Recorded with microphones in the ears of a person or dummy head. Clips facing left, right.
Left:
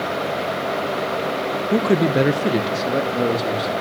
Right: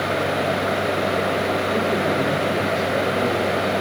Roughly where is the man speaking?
Left.